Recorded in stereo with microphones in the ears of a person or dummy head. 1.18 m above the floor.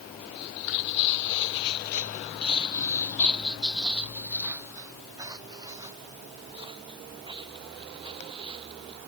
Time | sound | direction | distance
0.3 | footsteps | 60° left (ahead or behind) | ?